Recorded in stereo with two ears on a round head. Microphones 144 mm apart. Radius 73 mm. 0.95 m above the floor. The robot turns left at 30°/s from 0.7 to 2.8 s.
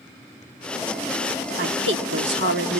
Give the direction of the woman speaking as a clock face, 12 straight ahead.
2 o'clock.